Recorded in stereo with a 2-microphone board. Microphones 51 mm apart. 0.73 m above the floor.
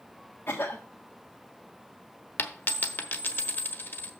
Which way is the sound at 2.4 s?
50° left (ahead or behind).